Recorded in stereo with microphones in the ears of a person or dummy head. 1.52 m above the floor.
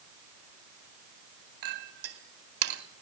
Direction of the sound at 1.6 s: 80° right.